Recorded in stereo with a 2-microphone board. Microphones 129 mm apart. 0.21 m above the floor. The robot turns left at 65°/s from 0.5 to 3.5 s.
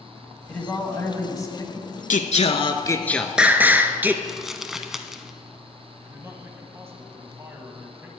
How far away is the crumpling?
About 0.6 m.